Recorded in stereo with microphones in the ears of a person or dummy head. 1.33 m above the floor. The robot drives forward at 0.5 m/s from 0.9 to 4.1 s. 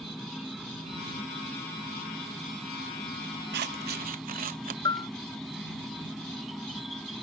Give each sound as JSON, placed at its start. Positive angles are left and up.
{"t": 0.0, "sound": "an insect", "side_deg": -5}
{"t": 3.5, "sound": "scissors", "side_deg": -50}
{"t": 4.8, "sound": "a bell", "side_deg": 20}